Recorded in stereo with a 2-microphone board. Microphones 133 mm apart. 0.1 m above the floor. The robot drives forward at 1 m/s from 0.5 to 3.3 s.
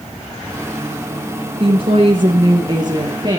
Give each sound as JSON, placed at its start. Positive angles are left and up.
{"t": 1.6, "sound": "a woman speaking", "side_deg": -45, "distance_m": 1.9}